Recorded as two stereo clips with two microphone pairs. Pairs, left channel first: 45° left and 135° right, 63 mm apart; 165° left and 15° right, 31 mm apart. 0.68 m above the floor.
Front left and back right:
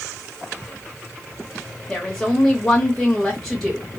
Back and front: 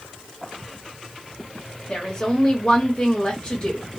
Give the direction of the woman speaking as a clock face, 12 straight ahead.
8 o'clock.